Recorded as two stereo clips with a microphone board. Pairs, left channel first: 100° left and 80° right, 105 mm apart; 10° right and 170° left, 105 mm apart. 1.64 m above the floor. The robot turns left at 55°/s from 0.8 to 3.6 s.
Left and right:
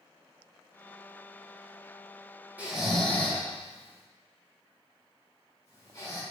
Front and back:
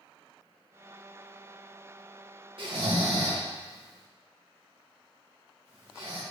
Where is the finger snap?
I don't hear a finger snap.